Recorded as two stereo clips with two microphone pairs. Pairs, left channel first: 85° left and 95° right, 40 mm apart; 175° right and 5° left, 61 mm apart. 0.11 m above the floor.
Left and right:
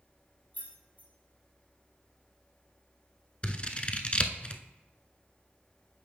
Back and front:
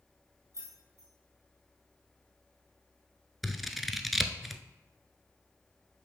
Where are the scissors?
100° left, 0.5 m.